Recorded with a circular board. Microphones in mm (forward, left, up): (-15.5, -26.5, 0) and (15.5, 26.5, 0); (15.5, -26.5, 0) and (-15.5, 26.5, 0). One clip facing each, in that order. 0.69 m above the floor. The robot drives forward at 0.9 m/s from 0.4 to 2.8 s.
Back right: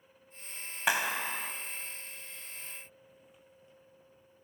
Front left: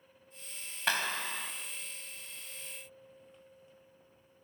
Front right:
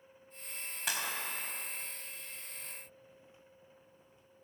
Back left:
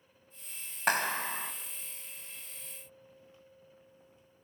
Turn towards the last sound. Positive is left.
turn(degrees=170)